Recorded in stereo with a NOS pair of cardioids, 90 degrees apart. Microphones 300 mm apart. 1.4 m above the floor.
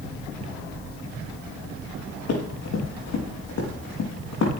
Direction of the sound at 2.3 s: 60° left.